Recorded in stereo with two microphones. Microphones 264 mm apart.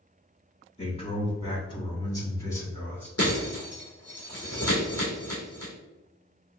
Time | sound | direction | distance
0.8 | a man speaking | 25° left (ahead or behind) | 1.8 m
3.2 | breaking glass | 65° left (ahead or behind) | 2 m